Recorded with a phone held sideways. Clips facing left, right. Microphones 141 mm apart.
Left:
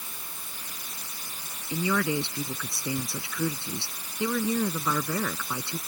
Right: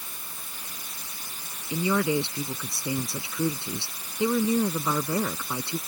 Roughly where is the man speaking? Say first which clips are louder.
Right 2 dB; right.